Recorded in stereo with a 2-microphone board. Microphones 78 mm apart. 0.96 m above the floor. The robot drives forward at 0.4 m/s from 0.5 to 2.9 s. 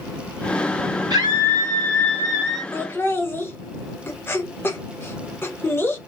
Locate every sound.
1.1 s a scream: 60° right (ahead or behind), 1.7 m; by 2.6 s 55° right (ahead or behind), 1.8 m
2.7 s laughter: 30° left (ahead or behind), 0.9 m